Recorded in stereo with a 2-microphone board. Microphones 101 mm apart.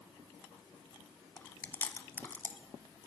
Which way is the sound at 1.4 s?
20° left (ahead or behind).